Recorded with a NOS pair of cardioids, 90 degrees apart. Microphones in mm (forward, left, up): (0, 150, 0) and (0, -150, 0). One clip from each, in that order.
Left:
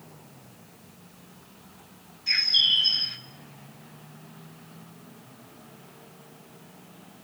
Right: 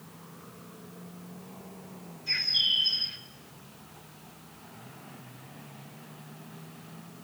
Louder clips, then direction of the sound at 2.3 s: Left 5 dB; 55° left.